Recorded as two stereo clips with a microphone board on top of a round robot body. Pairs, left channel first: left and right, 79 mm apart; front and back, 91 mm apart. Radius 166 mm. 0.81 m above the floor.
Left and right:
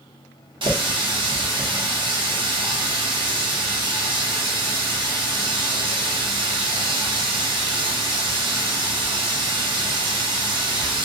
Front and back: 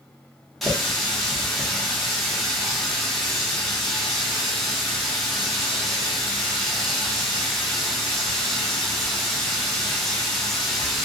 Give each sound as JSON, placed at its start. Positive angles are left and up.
{"t": 0.6, "sound": "a running tap", "azimuth_deg": -90, "distance_m": 0.8}